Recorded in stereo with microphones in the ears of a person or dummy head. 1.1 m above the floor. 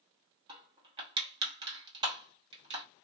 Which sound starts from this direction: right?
Crushing, at 0.5 s.